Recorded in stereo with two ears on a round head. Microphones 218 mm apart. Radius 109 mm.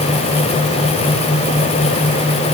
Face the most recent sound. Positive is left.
No sound to turn to.